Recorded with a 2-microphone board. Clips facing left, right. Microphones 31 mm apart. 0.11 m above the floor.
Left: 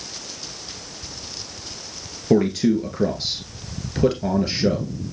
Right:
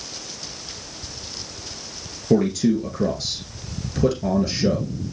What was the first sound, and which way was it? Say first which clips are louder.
A man speaking: left 1 dB; 20° left (ahead or behind).